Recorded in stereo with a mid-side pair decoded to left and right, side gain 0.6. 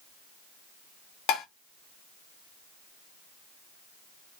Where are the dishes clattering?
70° left, 0.8 m.